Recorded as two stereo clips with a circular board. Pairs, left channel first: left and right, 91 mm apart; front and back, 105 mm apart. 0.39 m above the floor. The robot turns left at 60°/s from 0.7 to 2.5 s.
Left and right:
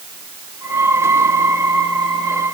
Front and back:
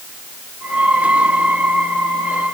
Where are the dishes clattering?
No dishes clattering in this recording.